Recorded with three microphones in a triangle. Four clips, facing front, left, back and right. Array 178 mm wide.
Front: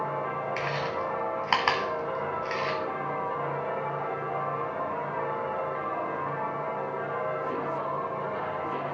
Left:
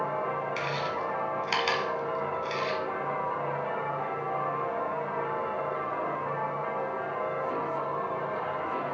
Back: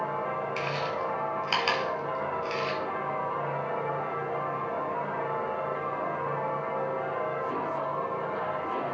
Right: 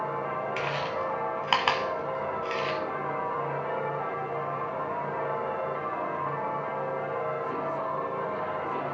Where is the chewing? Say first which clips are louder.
Right 1 dB, even; 45° right, 2 m.